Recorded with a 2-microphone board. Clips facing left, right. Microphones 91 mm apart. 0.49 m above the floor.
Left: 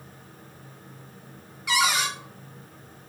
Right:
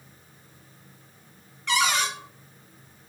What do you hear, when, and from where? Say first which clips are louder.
1.7 s a cupboard door: even; 10° left (ahead or behind), 1.1 m